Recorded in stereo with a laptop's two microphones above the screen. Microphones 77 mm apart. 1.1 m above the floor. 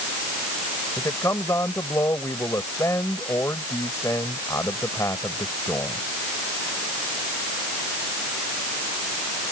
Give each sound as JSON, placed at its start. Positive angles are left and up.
{"t": 1.0, "sound": "a man speaking", "side_deg": 45}